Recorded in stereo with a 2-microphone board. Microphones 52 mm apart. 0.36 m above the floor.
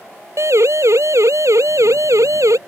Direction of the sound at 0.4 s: 60° right (ahead or behind).